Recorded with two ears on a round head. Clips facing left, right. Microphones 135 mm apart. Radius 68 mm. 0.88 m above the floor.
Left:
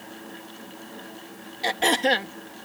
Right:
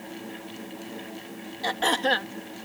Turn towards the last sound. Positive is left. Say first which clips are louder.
# left 2 dB
turn(degrees=20)  # may be behind; listen again after turning